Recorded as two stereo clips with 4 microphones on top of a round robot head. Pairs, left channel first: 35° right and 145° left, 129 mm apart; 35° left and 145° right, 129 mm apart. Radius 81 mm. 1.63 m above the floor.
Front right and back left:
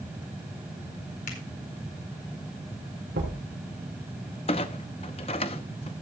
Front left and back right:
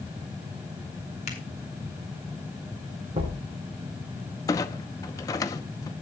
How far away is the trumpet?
No trumpet in this recording.